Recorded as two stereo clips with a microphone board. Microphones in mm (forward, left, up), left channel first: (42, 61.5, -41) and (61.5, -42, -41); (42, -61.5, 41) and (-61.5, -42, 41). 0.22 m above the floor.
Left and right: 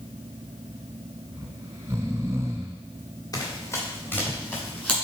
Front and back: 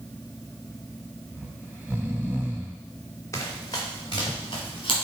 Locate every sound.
1.3 s snoring: 125° right, 0.9 m
3.3 s running footsteps: 45° left, 2.5 m; by 5.0 s 25° left, 4 m